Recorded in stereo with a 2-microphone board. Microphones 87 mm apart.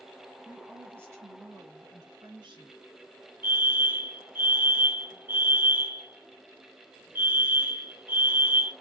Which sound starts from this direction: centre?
A woman speaking, at 0.5 s.